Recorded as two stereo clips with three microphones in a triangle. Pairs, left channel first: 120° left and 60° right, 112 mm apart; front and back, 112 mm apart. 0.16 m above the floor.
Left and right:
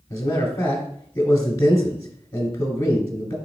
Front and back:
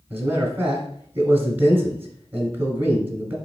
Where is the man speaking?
130° left, 1.1 m.